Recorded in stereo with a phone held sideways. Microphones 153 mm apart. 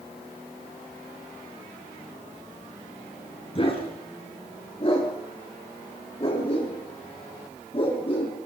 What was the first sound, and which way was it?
A dog barking, 40° left (ahead or behind).